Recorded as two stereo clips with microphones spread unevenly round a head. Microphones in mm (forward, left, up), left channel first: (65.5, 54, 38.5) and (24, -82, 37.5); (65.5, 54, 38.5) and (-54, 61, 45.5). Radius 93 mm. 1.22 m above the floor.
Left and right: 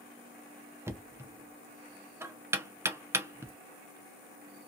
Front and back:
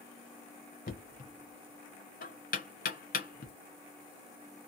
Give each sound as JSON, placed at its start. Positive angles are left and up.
{"t": 0.9, "sound": "knocking", "azimuth_deg": -35, "distance_m": 0.6}